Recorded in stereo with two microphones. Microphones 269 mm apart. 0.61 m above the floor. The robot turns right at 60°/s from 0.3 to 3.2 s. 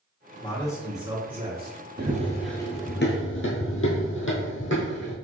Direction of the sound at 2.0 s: 40° right (ahead or behind).